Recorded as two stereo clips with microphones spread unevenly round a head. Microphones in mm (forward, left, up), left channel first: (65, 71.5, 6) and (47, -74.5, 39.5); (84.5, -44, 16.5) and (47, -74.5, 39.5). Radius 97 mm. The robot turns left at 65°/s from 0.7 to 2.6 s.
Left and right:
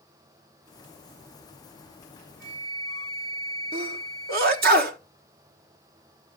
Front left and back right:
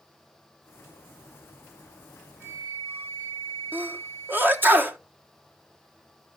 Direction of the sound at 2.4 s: 100° right.